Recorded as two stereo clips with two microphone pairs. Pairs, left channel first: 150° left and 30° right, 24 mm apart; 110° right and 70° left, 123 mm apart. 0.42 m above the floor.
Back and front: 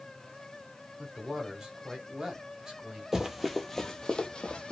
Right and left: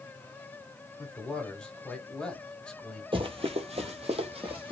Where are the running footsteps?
35° left, 0.6 m; by 4.7 s 110° left, 0.9 m.